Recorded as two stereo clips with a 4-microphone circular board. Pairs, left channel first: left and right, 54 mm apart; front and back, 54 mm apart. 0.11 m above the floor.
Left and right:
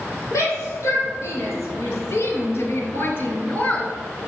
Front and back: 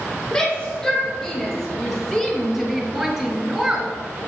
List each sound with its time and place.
0.3 s a shout: 80° left, 4.5 m; by 3.9 s 140° left, 1.5 m